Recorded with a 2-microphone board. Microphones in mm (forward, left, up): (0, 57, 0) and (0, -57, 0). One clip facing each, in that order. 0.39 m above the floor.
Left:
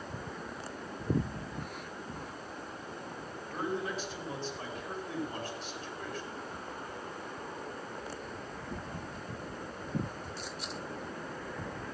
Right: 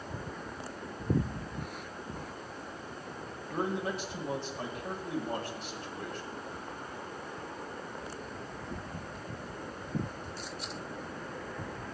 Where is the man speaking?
65° right (ahead or behind), 3.5 m.